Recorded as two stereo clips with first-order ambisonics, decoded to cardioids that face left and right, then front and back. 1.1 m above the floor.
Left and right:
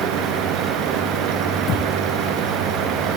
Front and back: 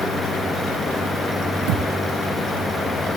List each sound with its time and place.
1.7 s a thud: 150° left